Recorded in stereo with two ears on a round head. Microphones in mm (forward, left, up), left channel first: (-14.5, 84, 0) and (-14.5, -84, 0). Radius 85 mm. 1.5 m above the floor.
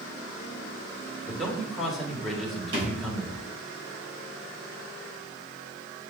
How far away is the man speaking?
About 1.7 m.